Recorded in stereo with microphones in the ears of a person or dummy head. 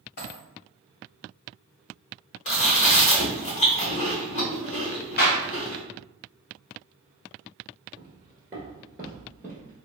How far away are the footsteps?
About 1.3 m.